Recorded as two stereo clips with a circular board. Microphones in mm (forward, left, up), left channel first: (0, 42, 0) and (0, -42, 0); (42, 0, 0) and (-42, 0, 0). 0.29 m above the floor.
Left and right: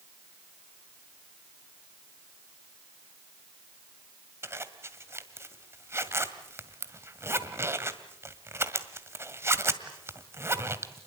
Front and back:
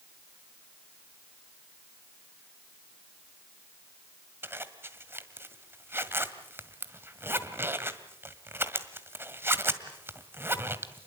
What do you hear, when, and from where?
4.4 s a zipper: 135° right, 1.8 m